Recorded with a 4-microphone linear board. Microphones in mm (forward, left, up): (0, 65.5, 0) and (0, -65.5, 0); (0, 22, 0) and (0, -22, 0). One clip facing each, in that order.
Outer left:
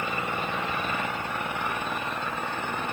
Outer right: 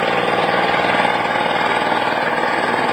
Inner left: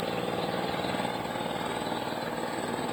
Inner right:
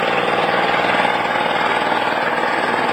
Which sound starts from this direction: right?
An engine running, at 0.0 s.